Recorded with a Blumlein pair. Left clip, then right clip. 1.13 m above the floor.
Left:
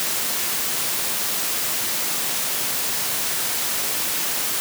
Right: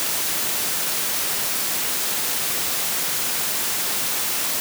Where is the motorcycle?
No motorcycle in this recording.